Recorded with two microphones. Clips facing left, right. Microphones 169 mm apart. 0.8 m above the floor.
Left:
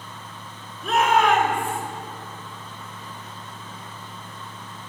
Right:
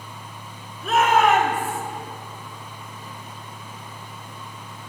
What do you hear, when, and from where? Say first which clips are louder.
0.8 s a shout: right 1 dB; centre (ahead or behind), 4 m; by 1.8 s 5° right (ahead or behind), 3.5 m